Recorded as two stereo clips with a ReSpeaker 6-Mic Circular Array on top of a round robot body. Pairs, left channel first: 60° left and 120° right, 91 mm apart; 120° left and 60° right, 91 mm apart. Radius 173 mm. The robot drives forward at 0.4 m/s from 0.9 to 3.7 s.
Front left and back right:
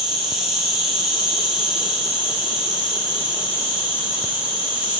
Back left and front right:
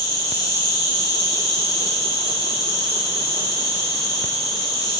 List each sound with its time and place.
0.0 s an insect: 160° left, 3 m; by 5.0 s 165° left, 4 m